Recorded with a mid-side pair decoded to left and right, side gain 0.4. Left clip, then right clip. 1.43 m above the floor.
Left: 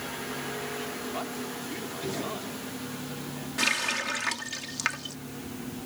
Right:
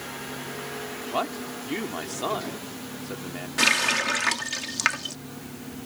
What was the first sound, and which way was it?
A man speaking, 70° right.